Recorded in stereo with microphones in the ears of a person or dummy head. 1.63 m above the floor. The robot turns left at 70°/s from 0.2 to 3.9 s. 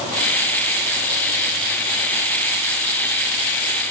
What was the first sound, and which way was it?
Only background noise.